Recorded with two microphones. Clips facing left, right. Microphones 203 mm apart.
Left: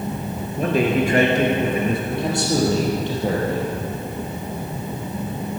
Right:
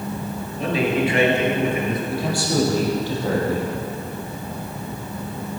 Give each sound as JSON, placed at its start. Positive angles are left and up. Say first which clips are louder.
{"t": 0.6, "sound": "a man speaking", "louder": "left 2 dB", "side_deg": 50, "distance_m": 2.5}
{"t": 2.1, "sound": "a man speaking", "louder": "left 1 dB", "side_deg": 20, "distance_m": 4.5}